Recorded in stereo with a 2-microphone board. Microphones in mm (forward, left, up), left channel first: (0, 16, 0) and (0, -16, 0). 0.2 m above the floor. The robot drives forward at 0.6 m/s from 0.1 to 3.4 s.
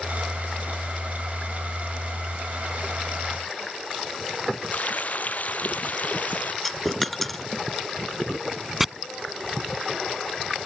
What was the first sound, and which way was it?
Frying, 55° left (ahead or behind).